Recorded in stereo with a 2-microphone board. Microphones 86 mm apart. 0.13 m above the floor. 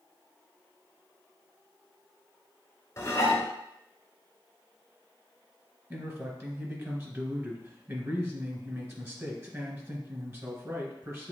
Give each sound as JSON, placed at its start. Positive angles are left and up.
{"t": 3.0, "sound": "dishes clattering", "side_deg": 35, "distance_m": 0.9}
{"t": 5.9, "sound": "a man speaking", "side_deg": -30, "distance_m": 1.5}